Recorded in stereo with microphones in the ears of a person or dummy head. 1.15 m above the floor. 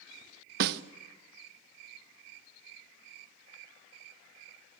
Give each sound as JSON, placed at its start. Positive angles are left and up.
{"t": 0.6, "sound": "a snare drum", "side_deg": -65, "distance_m": 0.8}